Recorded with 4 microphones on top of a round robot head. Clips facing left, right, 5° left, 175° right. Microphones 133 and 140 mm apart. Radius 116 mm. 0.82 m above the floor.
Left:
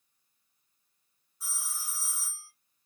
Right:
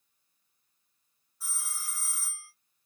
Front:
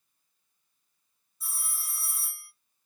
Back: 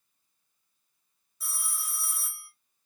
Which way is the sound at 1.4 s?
165° left.